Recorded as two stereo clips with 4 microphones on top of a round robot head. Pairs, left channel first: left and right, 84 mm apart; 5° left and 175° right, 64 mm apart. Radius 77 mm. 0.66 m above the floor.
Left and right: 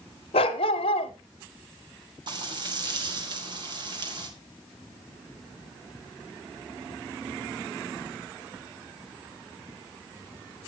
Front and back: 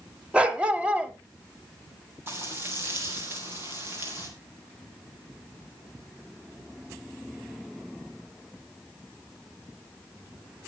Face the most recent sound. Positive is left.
turn(degrees=-120)